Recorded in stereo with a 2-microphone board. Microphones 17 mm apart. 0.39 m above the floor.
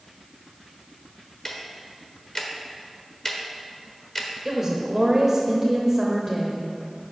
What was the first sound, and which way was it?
Ticking, 30° left (ahead or behind).